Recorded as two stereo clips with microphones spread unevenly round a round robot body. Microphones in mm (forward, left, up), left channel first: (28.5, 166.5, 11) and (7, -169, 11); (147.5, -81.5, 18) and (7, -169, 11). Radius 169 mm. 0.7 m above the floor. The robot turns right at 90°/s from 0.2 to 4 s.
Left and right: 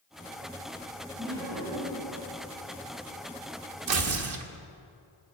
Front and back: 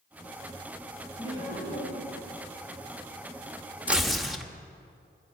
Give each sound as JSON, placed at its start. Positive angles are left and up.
{"t": 1.2, "sound": "laughter", "azimuth_deg": -40, "distance_m": 4.5}
{"t": 3.9, "sound": "tearing paper", "azimuth_deg": -70, "distance_m": 1.2}